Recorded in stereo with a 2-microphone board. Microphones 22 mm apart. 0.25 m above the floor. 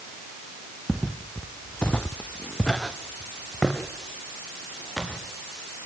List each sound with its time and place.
0.9 s footsteps: 5° left (ahead or behind), 1.7 m; by 5.2 s 10° left (ahead or behind), 5 m